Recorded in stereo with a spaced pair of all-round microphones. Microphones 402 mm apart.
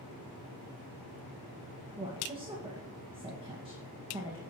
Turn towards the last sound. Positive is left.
turn(degrees=-15)  # may be behind; listen again after turning